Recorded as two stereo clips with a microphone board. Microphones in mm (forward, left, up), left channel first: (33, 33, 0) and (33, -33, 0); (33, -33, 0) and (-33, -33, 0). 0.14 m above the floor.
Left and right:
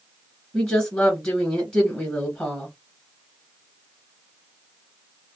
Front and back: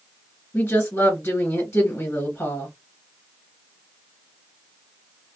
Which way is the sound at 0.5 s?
25° left.